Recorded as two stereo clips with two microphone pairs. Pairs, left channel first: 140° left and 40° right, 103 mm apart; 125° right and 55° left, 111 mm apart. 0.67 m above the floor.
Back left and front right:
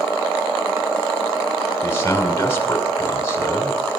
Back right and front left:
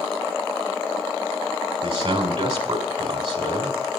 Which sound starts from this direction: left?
A man speaking, at 1.8 s.